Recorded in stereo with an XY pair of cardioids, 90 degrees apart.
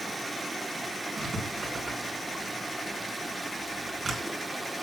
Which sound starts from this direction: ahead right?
Writing, at 1.2 s.